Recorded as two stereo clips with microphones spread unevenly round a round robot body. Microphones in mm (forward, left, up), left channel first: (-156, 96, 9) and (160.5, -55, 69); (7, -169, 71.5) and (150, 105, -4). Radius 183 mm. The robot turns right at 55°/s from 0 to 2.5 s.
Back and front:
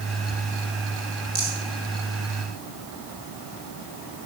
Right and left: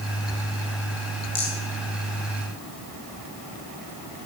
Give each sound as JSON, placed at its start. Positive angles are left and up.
{"t": 1.4, "sound": "a rattle", "azimuth_deg": -90, "distance_m": 4.5}